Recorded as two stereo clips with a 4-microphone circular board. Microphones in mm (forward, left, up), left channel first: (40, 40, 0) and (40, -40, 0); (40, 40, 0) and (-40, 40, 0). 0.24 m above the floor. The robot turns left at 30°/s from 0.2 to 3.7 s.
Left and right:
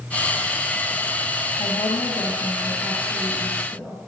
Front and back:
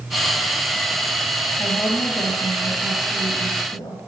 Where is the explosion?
No explosion in this recording.